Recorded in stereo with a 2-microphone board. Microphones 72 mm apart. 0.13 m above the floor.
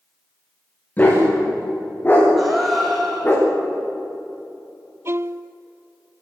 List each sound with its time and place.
1.0 s a dog barking: 25° left (ahead or behind), 9 m; by 3.4 s 30° left (ahead or behind), 7.5 m
2.4 s a gasp: centre (ahead or behind), 5 m
5.0 s a violin: 40° right (ahead or behind), 0.5 m